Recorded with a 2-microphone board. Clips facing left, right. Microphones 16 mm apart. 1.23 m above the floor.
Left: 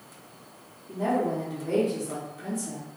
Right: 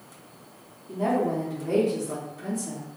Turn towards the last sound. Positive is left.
turn(degrees=0)  # may be behind; listen again after turning